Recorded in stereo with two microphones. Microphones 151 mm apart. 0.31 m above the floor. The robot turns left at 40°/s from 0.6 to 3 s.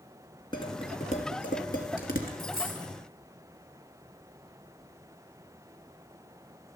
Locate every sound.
0.5 s dishes clattering: 30° left (ahead or behind), 2.5 m; by 2.3 s 75° left (ahead or behind), 2.5 m
2.4 s a dropped coin: 85° left, 6.5 m; by 2.9 s 65° left (ahead or behind), 6.5 m